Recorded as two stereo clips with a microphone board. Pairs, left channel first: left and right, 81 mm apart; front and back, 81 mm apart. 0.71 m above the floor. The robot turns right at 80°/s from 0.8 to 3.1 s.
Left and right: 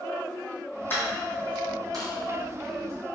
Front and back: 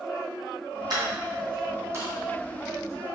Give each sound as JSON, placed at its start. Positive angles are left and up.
{"t": 0.9, "sound": "a dropped coin", "azimuth_deg": 150, "distance_m": 1.9}